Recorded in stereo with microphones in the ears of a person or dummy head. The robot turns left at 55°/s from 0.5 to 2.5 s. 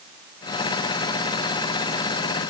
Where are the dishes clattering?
No dishes clattering in this recording.